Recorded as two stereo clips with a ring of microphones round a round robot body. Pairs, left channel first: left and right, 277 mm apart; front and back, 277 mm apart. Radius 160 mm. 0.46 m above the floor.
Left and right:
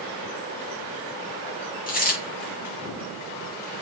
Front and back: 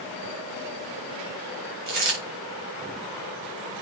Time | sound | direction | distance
1.9 | a dropped coin | 150° left | 6.5 m